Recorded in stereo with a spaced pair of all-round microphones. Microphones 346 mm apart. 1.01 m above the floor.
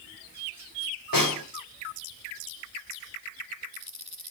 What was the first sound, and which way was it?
A snare drum, 75° left (ahead or behind).